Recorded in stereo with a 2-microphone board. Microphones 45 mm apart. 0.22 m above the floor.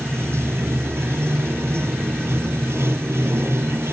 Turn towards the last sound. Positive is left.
turn(degrees=-70)  # may be behind; listen again after turning